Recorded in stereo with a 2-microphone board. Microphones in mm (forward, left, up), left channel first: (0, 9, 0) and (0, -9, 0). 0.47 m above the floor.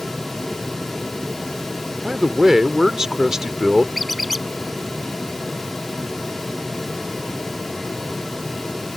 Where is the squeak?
Centre (ahead or behind).